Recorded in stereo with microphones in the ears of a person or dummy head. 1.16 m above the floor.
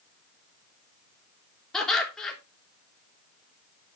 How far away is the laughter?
About 3 m.